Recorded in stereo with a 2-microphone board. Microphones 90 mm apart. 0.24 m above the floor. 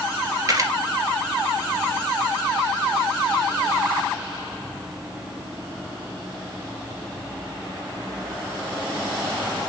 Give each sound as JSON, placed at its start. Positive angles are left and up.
{"t": 0.5, "sound": "a camera shutter", "side_deg": -40, "distance_m": 2.0}